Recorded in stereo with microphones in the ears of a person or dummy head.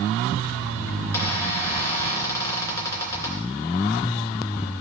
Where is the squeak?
15° left (ahead or behind), 3 m.